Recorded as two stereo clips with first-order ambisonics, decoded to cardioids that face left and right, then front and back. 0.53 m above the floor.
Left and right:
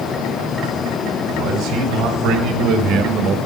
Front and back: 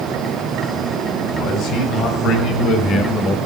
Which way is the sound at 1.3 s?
45° right.